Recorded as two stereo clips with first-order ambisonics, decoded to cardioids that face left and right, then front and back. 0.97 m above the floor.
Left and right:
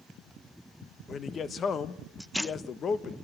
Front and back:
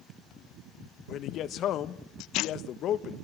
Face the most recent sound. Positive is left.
turn(degrees=35)